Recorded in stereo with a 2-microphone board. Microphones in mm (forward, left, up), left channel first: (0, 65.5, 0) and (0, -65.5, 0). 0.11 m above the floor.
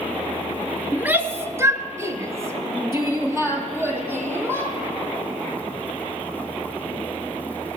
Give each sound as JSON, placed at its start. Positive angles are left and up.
{"t": 0.9, "sound": "a shout", "side_deg": -10, "distance_m": 1.2}